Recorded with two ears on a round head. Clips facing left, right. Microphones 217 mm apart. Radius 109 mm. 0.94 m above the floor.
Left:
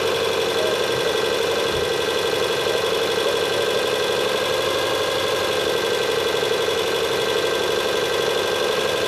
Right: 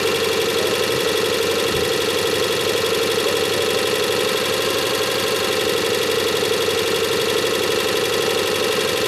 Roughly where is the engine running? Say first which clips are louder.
Right 2 dB; right.